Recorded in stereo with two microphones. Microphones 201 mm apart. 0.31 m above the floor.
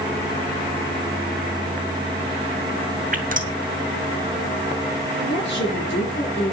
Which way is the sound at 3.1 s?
45° right (ahead or behind).